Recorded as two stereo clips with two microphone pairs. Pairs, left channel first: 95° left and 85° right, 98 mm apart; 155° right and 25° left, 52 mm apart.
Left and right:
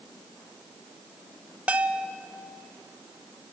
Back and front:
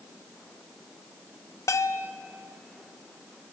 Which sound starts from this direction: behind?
A bell, at 1.7 s.